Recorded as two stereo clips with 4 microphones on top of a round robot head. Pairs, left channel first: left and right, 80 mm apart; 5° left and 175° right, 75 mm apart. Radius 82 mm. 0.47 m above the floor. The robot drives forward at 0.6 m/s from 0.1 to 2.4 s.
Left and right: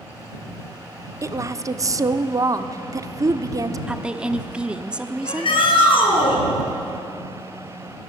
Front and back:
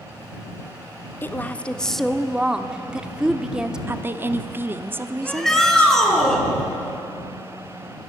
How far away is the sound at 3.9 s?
About 0.9 m.